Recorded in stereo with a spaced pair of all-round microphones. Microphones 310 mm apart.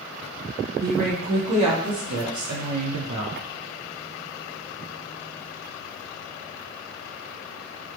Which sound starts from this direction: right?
A woman speaking, at 0.8 s.